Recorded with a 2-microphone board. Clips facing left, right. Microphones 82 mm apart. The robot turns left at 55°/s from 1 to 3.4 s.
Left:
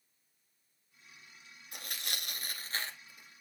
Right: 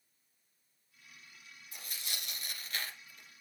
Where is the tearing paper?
75° left (ahead or behind), 1.3 m; by 3.4 s centre (ahead or behind), 1.3 m.